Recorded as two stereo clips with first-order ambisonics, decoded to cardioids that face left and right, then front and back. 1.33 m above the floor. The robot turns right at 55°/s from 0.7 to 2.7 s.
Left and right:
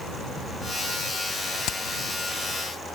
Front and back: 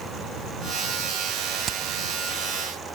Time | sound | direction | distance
1.7 | hammering | 120° left | ?